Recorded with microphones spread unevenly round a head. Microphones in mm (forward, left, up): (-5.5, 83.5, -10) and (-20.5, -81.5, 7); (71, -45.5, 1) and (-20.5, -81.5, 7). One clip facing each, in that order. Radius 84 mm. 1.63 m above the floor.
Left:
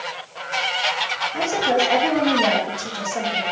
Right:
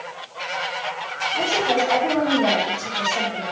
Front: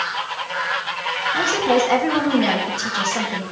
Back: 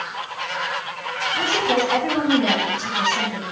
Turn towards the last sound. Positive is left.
turn(degrees=20)